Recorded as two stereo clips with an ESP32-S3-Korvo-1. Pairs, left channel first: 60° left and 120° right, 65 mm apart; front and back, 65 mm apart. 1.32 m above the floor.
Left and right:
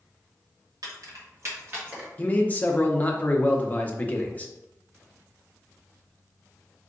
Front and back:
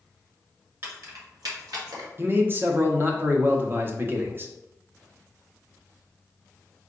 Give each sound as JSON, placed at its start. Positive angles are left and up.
{"t": 0.8, "sound": "keys jangling", "azimuth_deg": -135, "distance_m": 1.5}
{"t": 2.2, "sound": "a man speaking", "azimuth_deg": 125, "distance_m": 0.8}